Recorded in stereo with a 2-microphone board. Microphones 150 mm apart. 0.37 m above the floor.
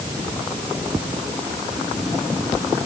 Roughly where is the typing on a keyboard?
No typing on a keyboard in this recording.